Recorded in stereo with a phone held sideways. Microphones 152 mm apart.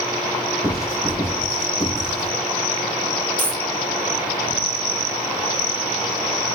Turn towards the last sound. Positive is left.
turn(degrees=10)  # may be behind; listen again after turning